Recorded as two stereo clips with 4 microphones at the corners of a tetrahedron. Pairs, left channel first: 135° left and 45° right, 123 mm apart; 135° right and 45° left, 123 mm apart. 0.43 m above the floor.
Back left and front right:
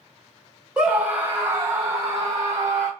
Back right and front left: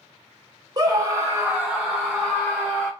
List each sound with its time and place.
0.8 s a scream: 30° left, 1.0 m; by 2.9 s 80° right, 1.1 m